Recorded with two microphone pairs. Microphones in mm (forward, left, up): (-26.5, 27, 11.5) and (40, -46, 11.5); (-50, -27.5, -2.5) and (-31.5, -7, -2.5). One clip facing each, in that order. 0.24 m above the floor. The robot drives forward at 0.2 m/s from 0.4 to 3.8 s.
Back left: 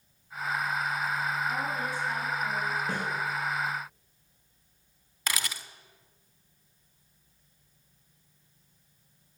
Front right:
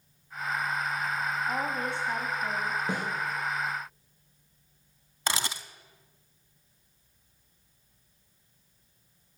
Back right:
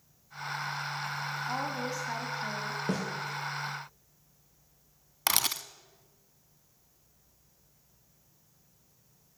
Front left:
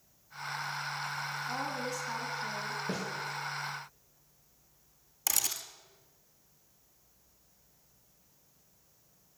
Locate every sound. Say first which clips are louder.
1.5 s a woman speaking: front right 1 dB, back right 3 dB; 85° right, 1.5 m; by 2.8 s 100° right, 1.5 m
2.9 s a snare drum: front right 1 dB, back right 6 dB; 120° right, 4 m
5.3 s a camera shutter: front right 3 dB, back right 5 dB; 105° right, 0.6 m